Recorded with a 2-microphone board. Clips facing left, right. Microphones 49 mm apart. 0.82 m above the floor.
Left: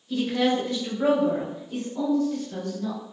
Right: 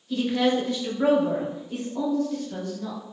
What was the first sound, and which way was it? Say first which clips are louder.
A woman speaking: right 1 dB; centre (ahead or behind).